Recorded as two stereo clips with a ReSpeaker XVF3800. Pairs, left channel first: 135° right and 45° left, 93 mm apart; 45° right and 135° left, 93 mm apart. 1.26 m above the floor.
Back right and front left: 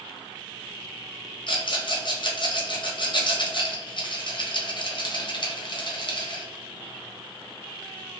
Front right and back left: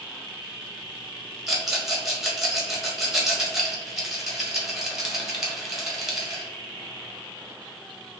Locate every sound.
1.5 s a rattle: 140° right, 0.9 m